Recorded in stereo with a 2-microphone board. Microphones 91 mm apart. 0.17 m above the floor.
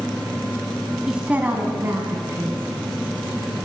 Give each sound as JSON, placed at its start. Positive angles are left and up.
{"t": 1.1, "sound": "a woman speaking", "side_deg": -5, "distance_m": 1.1}